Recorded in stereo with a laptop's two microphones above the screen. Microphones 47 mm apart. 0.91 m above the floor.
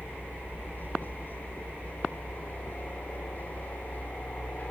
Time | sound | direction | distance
0.0 | a helicopter | 45° left (ahead or behind) | ?